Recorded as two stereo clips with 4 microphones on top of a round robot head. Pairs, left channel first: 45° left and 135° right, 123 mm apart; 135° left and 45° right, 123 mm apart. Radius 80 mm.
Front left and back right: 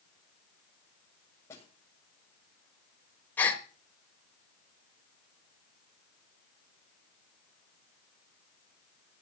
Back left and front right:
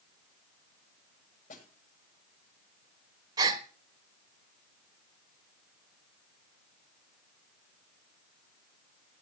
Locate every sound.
1.5 s a snare drum: 115° left, 7.5 m
3.4 s a gasp: 20° right, 1.2 m